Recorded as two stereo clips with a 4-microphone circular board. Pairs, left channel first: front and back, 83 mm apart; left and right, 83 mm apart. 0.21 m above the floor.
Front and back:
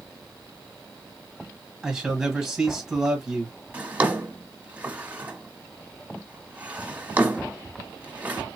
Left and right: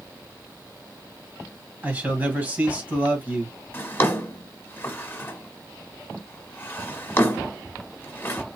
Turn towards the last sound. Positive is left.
turn(degrees=125)